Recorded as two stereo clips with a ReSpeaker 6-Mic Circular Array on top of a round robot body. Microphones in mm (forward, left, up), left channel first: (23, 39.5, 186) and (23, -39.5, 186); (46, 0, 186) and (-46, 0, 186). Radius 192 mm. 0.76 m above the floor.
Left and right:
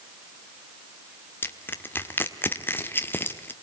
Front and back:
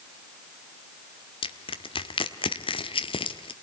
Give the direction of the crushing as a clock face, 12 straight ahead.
11 o'clock.